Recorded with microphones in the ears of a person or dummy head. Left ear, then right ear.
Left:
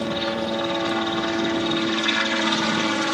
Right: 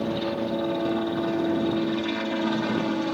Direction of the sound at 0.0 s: 60° left (ahead or behind).